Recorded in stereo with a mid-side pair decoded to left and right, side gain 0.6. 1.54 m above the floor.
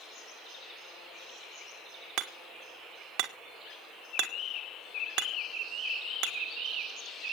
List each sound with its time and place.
2.2 s hammering: 70° right, 1.5 m